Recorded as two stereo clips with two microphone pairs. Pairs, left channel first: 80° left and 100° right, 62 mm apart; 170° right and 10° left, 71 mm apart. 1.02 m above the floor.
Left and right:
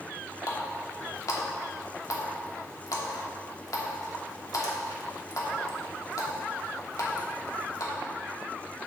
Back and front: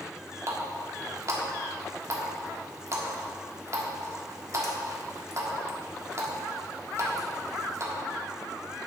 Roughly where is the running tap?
Ahead left.